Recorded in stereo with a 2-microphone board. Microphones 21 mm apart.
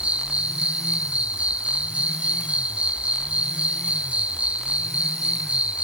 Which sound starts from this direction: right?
An insect, at 0.0 s.